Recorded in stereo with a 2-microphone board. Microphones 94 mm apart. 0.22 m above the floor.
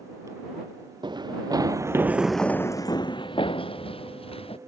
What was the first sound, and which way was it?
Running footsteps, 55° right (ahead or behind).